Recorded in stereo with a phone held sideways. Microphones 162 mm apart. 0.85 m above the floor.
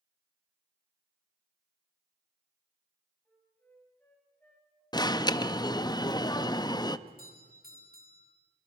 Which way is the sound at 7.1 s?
65° right (ahead or behind).